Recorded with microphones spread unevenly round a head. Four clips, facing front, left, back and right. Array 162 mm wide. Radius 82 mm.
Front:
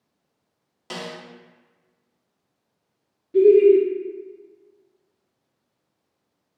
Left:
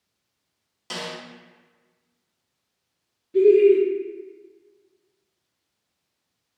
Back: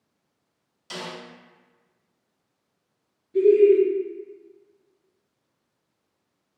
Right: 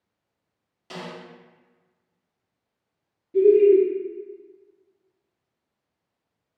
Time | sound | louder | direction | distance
0.9 | a snare drum | left 3 dB, front 2 dB | 15° left | 0.8 m
3.3 | laughter | even, front 3 dB | 10° right | 0.5 m